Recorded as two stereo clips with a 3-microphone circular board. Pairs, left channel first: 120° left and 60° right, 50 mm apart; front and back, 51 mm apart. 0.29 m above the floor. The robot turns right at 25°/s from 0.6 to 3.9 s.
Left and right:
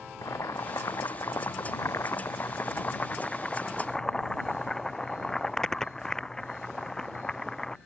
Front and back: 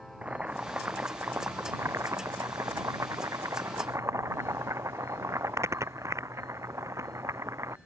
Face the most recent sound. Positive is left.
turn(degrees=-160)